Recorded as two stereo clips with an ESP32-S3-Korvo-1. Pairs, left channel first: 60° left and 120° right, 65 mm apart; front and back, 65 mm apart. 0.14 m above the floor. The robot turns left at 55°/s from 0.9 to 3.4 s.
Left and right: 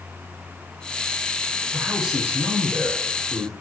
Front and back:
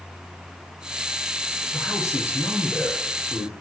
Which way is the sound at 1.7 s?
20° right.